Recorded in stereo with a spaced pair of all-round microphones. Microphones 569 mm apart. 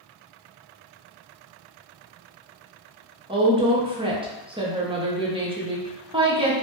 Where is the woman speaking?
10° right (ahead or behind), 0.6 m.